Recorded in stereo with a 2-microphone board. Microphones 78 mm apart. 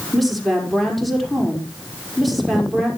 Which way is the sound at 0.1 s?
Centre (ahead or behind).